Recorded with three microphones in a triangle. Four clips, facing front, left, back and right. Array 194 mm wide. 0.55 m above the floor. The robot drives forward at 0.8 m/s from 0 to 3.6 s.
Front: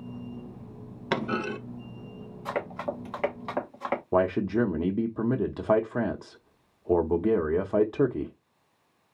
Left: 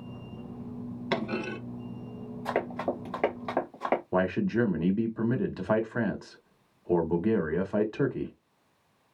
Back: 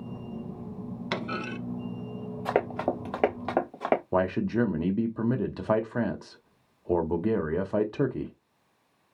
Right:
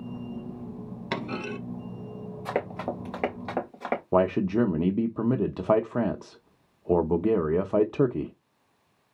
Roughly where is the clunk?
Ahead.